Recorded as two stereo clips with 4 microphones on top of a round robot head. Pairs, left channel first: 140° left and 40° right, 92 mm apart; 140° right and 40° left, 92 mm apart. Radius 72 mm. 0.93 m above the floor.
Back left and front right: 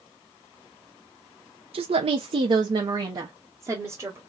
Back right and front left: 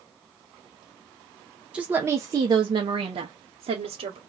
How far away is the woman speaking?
About 0.6 m.